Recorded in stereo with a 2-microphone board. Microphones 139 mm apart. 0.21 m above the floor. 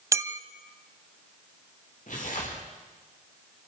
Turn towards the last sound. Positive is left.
turn(degrees=65)  # may be behind; listen again after turning